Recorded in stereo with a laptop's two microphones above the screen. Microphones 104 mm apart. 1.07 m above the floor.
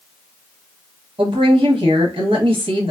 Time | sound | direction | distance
1.2 | a woman speaking | 60° right (ahead or behind) | 1.1 m